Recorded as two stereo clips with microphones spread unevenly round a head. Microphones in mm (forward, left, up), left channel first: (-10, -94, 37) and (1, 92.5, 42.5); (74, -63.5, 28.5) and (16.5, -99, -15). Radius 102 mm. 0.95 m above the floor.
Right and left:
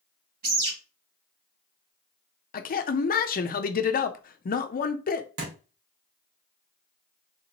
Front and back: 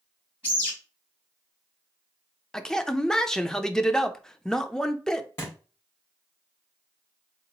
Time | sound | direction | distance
0.4 | a bird | 130° left | 3 m
2.5 | a man speaking | 80° right | 0.6 m
5.4 | a thud | 95° left | 1.7 m